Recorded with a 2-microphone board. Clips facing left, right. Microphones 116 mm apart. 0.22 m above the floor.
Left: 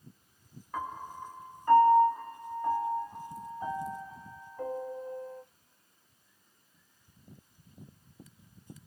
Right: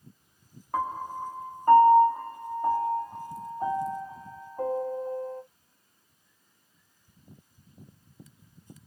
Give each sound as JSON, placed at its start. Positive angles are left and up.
{"t": 0.7, "sound": "a piano", "side_deg": -45, "distance_m": 1.0}